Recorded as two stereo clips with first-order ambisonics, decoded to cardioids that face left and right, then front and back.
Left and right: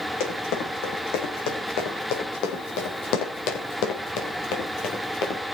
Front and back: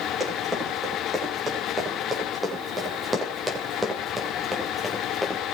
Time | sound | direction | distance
0.2 | running footsteps | 100° left | 5.5 m